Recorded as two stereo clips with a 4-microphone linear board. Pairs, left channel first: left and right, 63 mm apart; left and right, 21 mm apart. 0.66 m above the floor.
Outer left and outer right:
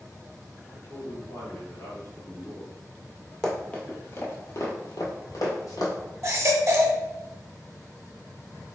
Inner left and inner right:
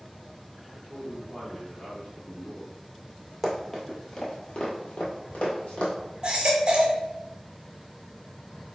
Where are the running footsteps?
10° left (ahead or behind), 1.1 m; by 5.9 s 70° left (ahead or behind), 1.9 m.